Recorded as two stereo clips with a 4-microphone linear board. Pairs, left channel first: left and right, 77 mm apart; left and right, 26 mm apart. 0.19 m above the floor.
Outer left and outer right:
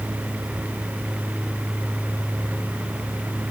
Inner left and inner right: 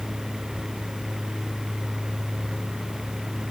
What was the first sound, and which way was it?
Only background noise.